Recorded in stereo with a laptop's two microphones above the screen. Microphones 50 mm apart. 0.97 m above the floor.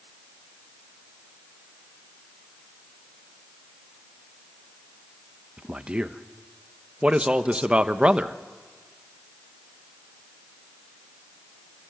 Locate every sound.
5.6 s a man speaking: 20° right (ahead or behind), 1.1 m